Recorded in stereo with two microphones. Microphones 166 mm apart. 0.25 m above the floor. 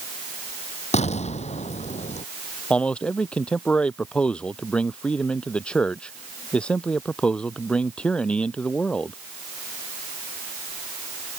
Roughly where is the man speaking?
Centre.